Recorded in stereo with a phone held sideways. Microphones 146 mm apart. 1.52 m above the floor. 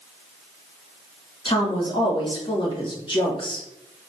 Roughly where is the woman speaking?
Left.